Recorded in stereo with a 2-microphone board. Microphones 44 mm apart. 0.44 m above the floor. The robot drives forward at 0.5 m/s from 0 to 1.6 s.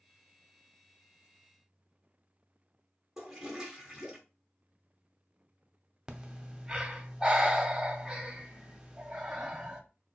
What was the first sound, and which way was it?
A toilet flushing, 10° right (ahead or behind).